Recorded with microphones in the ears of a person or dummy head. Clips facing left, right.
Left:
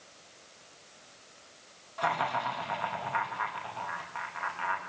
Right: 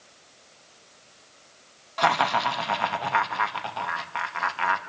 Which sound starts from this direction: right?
Laughter, at 2.0 s.